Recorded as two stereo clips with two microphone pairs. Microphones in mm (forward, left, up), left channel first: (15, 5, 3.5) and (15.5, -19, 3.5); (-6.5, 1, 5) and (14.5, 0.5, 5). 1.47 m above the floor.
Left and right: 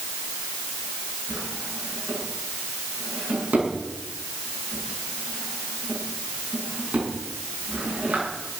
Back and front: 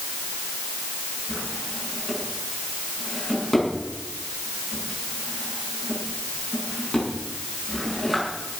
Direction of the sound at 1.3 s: 90° right.